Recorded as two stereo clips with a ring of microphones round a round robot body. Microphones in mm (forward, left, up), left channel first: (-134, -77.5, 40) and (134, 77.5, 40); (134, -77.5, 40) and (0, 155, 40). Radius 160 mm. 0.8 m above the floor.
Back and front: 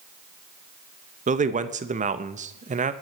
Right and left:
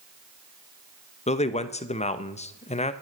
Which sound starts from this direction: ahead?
A man speaking, at 1.3 s.